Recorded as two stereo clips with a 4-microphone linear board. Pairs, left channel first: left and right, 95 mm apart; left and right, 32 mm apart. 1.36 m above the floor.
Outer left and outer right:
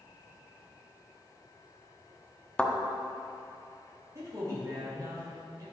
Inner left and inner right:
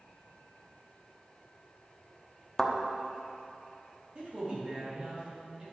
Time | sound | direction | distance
2.6 | a thud | 10° left (ahead or behind) | 0.9 m
4.2 | a man speaking | 35° right (ahead or behind) | 3 m